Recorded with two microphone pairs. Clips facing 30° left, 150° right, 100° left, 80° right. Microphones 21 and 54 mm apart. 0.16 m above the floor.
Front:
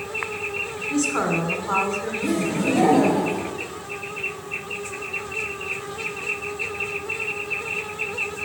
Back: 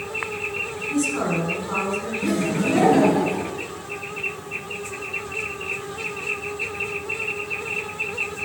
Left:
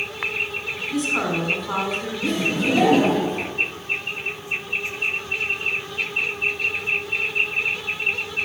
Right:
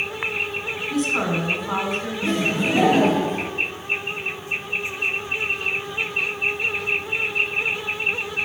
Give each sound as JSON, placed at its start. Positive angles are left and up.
{"t": 0.9, "sound": "a woman speaking", "azimuth_deg": 5, "distance_m": 1.4}
{"t": 2.2, "sound": "laughter", "azimuth_deg": -140, "distance_m": 2.5}